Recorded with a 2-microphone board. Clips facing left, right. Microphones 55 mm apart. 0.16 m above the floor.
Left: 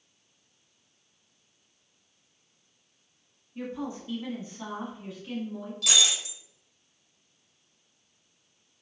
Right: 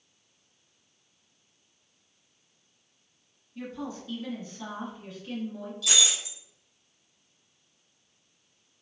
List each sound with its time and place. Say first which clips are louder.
3.5 s a woman speaking: left 2 dB; 30° left (ahead or behind), 1.3 m; by 5.7 s 5° left (ahead or behind), 1.4 m
5.8 s breaking glass: left 1 dB; 65° left (ahead or behind), 1.4 m